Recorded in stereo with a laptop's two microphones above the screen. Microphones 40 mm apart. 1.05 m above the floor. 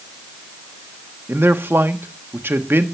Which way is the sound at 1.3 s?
75° right (ahead or behind).